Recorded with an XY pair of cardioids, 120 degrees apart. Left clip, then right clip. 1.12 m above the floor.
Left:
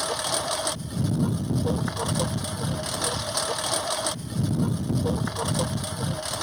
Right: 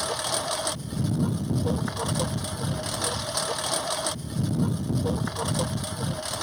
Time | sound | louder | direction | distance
0.0 | a lawn mower | left 1 dB | 5° left | ?